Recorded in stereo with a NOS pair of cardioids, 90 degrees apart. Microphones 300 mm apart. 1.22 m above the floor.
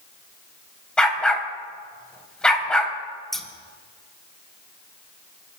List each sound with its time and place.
1.0 s a dog barking: 5° left, 3.5 m
3.3 s scissors: straight ahead, 2 m